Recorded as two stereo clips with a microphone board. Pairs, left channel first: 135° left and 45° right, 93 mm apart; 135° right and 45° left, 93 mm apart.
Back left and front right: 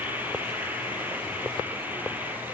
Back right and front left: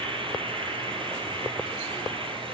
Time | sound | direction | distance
0.0 | an insect | 25° left | 6 m